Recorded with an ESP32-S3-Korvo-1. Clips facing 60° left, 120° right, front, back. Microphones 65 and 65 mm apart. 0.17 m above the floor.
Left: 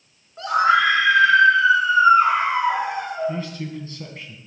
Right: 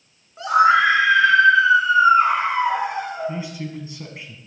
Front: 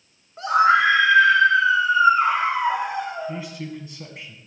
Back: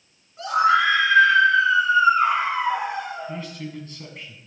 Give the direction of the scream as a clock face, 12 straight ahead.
1 o'clock.